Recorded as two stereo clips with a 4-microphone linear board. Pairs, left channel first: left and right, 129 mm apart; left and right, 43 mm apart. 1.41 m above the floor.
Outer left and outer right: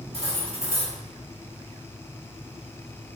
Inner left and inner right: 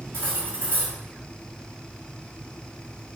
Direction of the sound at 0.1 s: 55° right (ahead or behind).